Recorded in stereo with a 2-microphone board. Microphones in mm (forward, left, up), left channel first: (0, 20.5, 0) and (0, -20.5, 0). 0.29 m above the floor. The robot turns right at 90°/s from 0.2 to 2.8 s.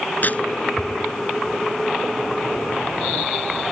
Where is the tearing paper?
50° left (ahead or behind); by 0.4 s 30° left (ahead or behind).